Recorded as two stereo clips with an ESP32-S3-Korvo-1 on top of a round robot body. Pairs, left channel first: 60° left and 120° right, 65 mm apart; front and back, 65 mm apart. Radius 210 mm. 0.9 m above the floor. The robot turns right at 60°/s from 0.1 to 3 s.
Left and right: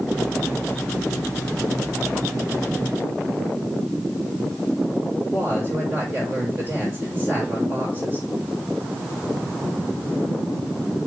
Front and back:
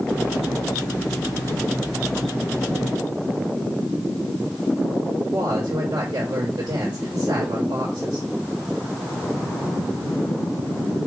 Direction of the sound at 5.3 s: 175° right.